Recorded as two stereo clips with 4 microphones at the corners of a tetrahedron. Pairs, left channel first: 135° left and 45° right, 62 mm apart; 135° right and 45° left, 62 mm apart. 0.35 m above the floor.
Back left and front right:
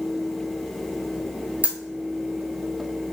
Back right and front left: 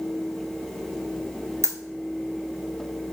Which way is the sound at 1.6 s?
20° left.